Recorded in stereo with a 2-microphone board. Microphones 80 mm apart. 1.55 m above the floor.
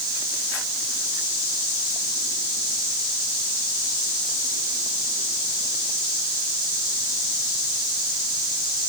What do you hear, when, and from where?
Only background noise.